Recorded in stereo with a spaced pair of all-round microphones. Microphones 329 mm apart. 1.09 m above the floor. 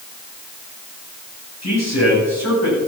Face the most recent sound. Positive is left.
turn(degrees=50)  # may be behind; listen again after turning